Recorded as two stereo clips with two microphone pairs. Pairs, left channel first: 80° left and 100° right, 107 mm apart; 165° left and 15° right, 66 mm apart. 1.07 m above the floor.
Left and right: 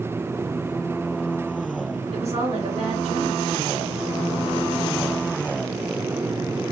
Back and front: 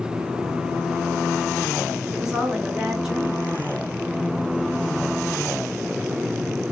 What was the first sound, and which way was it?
A woman speaking, 95° right.